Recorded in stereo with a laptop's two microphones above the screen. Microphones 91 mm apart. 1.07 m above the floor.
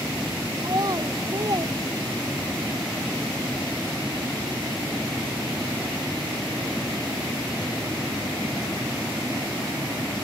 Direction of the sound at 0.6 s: 45° right (ahead or behind).